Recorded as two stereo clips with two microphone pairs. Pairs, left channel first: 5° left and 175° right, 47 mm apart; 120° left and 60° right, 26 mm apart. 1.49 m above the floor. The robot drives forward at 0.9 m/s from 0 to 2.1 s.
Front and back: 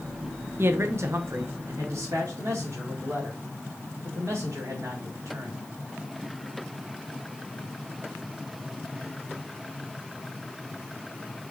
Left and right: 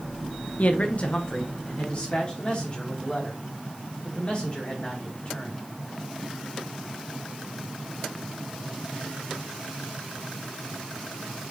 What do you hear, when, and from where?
0.6 s a man speaking: 150° left, 0.6 m; by 5.6 s 170° left, 1.8 m